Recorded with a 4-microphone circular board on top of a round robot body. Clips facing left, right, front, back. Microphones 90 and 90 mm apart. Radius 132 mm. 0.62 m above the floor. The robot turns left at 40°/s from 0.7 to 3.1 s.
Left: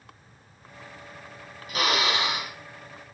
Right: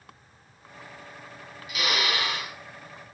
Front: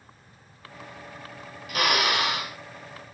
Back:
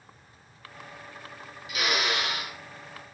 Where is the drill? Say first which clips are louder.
Left 3 dB, front 4 dB; 40° left, 5 m; by 2.5 s 5° left, 5 m.